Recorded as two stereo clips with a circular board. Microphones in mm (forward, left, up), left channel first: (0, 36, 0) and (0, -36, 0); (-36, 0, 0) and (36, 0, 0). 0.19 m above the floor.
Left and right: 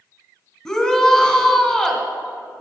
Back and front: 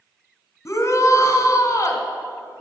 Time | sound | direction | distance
0.7 | a shout | 165° left | 1.4 m